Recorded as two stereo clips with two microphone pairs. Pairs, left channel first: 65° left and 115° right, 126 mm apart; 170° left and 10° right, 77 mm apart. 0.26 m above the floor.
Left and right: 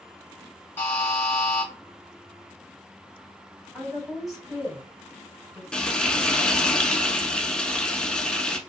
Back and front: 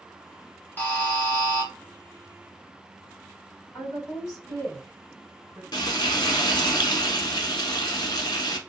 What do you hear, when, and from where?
0.8 s a buzzer: 130° left, 1.3 m
3.7 s a woman speaking: 160° left, 1.6 m
5.7 s frying: 150° left, 0.7 m